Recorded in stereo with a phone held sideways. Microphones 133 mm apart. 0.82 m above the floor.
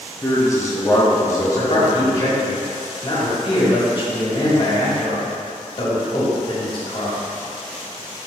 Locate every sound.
0.2 s a man speaking: 20° left (ahead or behind), 1.0 m
1.6 s a man speaking: 40° left (ahead or behind), 2 m